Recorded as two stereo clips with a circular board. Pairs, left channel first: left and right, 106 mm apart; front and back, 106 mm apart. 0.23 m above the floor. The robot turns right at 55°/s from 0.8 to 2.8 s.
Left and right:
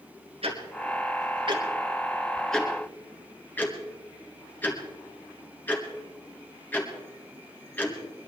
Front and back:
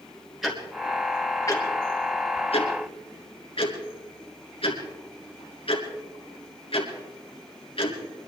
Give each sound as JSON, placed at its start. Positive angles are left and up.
{"t": 0.4, "sound": "ticking", "azimuth_deg": -90, "distance_m": 3.0}